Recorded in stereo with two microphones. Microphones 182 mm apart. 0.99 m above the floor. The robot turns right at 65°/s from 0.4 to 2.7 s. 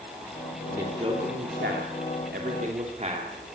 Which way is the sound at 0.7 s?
10° right (ahead or behind).